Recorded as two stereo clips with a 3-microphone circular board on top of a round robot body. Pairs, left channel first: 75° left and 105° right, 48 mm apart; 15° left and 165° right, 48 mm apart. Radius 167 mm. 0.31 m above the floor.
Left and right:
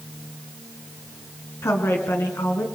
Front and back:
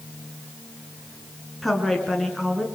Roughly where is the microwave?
I don't hear a microwave.